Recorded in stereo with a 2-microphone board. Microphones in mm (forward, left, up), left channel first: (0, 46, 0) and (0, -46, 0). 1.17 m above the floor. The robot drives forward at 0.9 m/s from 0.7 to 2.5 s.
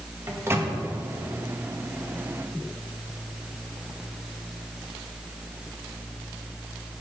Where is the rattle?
No rattle in this recording.